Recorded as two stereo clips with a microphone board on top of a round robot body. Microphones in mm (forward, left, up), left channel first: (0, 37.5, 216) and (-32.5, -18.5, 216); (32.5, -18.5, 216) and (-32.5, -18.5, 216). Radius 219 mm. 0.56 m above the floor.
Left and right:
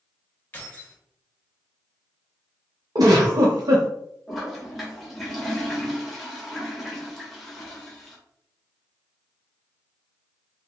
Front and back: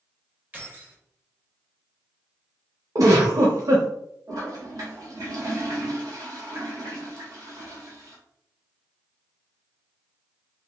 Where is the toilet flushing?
150° left, 1.2 m.